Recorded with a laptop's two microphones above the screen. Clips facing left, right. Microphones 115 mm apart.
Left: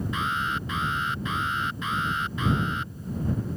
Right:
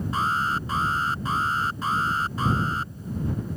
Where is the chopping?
No chopping in this recording.